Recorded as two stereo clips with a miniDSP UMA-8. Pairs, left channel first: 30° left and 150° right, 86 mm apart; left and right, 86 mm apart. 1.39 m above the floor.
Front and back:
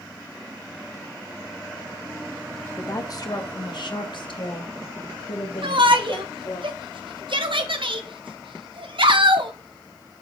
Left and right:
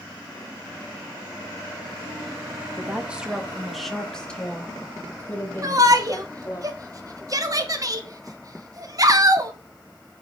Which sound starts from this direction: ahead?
A woman speaking, at 2.8 s.